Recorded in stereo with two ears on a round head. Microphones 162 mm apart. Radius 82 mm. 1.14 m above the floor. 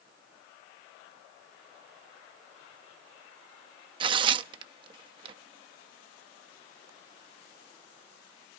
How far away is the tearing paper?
About 0.5 m.